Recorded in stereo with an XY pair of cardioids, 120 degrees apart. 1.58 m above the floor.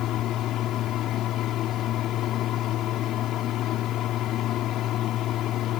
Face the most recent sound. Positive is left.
turn(degrees=65)